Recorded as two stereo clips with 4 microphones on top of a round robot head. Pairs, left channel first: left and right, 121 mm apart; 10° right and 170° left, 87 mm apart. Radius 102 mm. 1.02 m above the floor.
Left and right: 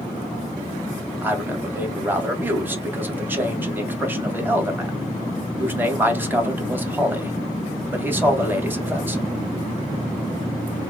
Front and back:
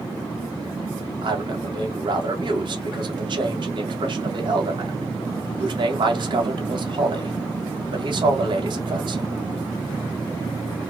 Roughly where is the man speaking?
Behind.